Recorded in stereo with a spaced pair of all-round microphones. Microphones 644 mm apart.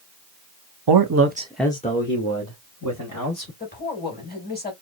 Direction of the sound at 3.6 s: 15° left (ahead or behind).